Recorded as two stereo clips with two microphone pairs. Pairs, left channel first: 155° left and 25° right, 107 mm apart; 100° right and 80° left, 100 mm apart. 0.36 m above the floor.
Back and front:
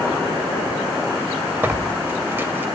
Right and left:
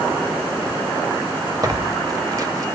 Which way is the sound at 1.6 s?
40° left.